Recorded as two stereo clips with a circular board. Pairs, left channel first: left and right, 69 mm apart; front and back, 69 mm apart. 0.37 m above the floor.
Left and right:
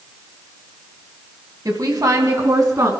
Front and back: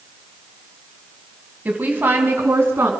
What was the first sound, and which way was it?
A woman speaking, 115° right.